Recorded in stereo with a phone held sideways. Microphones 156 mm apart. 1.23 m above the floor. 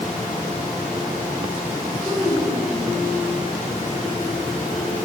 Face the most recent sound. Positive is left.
turn(degrees=-35)  # may be behind; listen again after turning